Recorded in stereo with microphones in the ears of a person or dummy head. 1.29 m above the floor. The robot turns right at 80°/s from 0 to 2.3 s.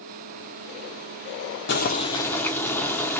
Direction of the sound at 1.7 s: 115° left.